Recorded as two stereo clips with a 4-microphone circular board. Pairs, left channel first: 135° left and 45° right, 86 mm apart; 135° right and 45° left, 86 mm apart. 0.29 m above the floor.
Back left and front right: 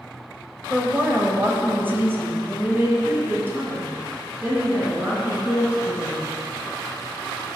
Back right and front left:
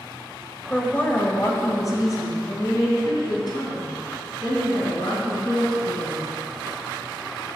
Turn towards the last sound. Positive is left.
turn(degrees=-110)